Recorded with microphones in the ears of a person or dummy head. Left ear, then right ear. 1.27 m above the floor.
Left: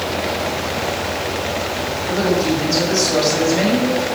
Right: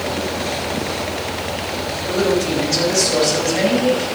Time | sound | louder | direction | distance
2.1 | a woman speaking | even | 5° left (ahead or behind) | 8 m